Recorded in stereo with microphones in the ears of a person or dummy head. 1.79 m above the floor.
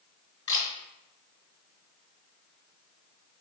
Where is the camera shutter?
20° left (ahead or behind), 3 m.